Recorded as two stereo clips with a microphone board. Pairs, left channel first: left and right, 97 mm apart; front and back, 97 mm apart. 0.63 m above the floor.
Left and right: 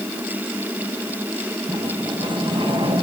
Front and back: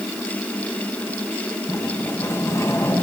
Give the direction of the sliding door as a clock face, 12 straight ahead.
2 o'clock.